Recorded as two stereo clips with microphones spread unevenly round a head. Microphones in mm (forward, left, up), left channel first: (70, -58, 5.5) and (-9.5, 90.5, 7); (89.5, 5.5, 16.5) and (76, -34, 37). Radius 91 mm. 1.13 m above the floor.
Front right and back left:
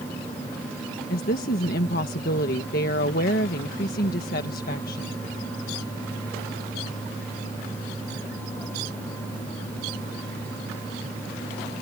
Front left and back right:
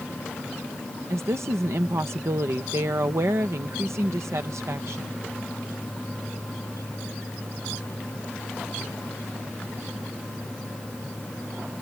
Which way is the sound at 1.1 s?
95° right.